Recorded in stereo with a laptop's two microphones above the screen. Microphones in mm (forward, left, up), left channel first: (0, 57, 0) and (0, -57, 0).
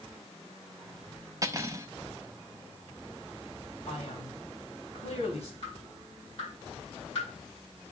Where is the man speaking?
65° left (ahead or behind), 2.5 m.